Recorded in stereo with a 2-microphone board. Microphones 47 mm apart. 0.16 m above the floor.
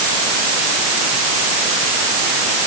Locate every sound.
Only background noise.